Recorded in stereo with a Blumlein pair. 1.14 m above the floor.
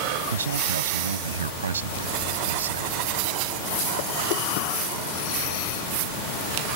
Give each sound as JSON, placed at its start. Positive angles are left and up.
{"t": 0.3, "sound": "a man speaking", "azimuth_deg": -70}